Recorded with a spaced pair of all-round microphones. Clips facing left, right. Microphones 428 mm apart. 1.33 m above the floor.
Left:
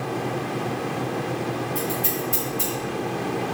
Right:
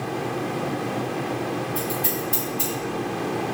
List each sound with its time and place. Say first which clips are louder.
1.8 s scissors: even; 65° left (ahead or behind), 1.9 m